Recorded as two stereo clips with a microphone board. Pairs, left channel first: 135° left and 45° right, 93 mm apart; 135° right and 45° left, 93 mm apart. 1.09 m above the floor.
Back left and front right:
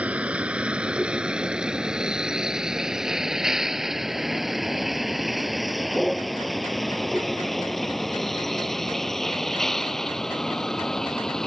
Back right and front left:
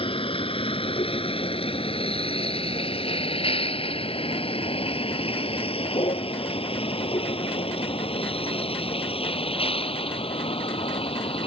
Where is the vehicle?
120° right; by 11.5 s 140° right.